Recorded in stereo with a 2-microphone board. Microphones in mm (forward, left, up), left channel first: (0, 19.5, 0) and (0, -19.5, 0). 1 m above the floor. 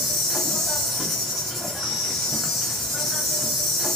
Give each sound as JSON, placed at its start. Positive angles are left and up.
{"t": 0.0, "sound": "an insect", "side_deg": 5, "distance_m": 1.4}